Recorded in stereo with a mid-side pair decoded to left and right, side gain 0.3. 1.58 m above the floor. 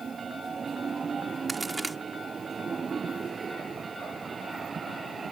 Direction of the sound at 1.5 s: 25° right.